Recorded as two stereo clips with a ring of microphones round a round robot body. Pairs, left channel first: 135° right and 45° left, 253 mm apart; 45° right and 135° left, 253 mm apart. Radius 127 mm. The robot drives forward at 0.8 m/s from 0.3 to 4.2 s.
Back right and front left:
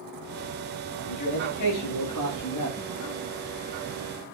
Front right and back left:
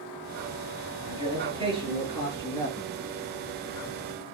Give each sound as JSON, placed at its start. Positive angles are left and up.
{"t": 1.1, "sound": "a man speaking", "azimuth_deg": -150, "distance_m": 6.5}